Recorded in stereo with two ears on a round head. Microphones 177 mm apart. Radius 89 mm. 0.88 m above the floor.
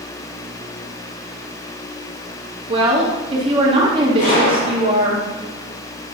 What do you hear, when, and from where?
2.7 s a woman speaking: 25° right (ahead or behind), 1.8 m
4.2 s a gunshot: 45° left (ahead or behind), 4 m